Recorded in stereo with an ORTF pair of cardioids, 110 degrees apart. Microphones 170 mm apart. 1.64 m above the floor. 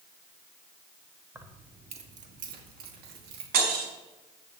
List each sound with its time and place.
1.4 s keys jangling: 15° right, 1.7 m; by 3.4 s 75° right, 3 m
3.5 s breaking glass: 65° right, 4.5 m